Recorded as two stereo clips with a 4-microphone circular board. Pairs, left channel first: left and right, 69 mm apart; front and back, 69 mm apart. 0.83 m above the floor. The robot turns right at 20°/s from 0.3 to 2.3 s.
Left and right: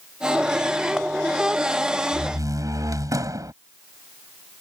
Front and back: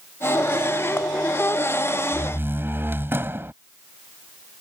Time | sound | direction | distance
2.1 | a door slam | 125° right | ?